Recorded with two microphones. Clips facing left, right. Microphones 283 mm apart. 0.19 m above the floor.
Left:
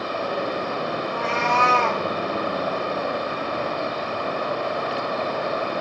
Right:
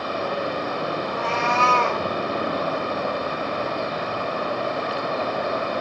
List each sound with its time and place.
1.0 s a cat meowing: centre (ahead or behind), 0.9 m; by 2.0 s 20° right (ahead or behind), 0.8 m